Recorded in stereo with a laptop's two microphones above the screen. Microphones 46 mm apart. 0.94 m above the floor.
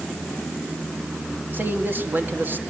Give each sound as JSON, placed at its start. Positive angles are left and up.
{"t": 1.5, "sound": "a man speaking", "side_deg": -45, "distance_m": 2.0}